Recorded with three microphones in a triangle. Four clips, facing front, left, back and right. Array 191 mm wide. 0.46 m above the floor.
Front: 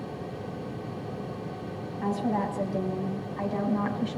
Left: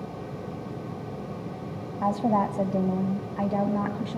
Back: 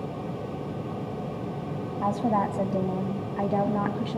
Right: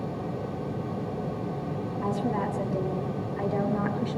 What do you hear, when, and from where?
2.0 s a woman speaking: 115° left, 3 m; by 4.2 s 155° left, 3.5 m